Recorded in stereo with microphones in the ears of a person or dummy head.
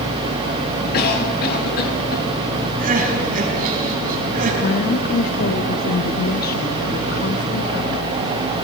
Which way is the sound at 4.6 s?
55° left (ahead or behind).